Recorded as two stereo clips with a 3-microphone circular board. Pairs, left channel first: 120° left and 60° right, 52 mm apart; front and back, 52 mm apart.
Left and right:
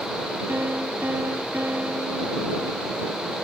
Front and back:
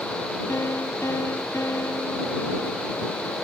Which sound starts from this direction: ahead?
A piano, at 0.5 s.